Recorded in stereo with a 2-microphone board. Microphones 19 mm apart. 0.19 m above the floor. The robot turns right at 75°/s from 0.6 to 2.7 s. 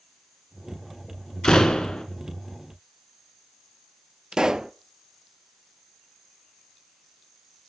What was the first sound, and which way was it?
A door slam, 60° left.